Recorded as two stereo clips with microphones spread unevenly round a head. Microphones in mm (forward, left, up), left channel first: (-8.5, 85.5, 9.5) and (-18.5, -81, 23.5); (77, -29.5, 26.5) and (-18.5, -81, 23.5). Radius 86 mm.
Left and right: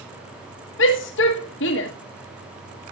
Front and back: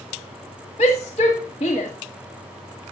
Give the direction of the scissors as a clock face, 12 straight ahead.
No scissors in this recording.